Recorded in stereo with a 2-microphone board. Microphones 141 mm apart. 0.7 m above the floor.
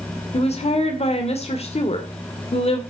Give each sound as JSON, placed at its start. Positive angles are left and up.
{"t": 0.3, "sound": "a woman speaking", "side_deg": 45, "distance_m": 2.0}